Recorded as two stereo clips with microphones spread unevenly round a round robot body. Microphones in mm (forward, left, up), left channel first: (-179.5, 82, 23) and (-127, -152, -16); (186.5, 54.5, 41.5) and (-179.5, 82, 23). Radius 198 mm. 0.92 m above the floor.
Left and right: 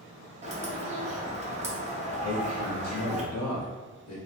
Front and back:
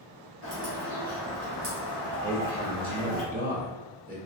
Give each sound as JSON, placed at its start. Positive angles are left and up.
{"t": 0.4, "sound": "a bird", "azimuth_deg": -130, "distance_m": 1.3}
{"t": 2.2, "sound": "a man speaking", "azimuth_deg": 110, "distance_m": 1.4}